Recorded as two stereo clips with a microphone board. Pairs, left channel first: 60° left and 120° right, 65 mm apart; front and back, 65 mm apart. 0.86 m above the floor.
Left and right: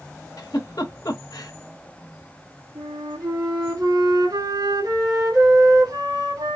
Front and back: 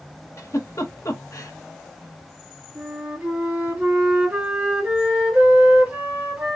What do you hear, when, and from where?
0.4 s a giggle: 40° left, 1.1 m
2.8 s a flute: 115° right, 2.5 m